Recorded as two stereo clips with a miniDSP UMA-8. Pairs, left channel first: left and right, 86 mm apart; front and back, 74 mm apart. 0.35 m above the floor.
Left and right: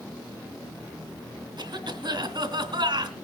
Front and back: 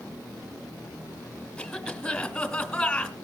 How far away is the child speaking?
No child speaking in this recording.